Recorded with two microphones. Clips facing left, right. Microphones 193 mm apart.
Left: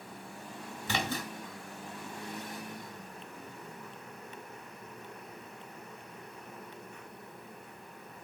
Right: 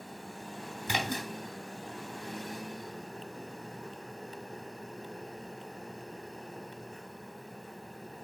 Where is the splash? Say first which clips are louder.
Even; 15° right (ahead or behind), 1.7 m.